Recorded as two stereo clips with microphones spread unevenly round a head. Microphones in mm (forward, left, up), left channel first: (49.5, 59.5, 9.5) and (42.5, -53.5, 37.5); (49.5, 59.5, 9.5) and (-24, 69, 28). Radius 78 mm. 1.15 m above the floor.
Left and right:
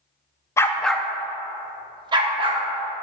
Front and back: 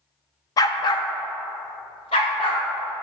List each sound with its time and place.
0.6 s a dog barking: 15° left, 0.6 m; by 2.6 s 65° right, 1.3 m